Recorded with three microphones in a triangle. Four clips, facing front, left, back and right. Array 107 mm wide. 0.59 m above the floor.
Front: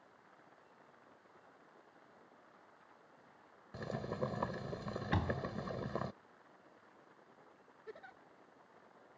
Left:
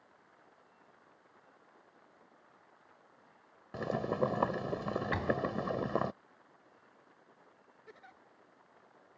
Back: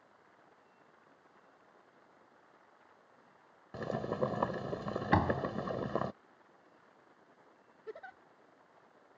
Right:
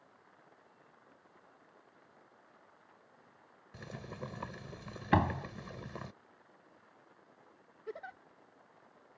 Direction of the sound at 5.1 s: 130° right.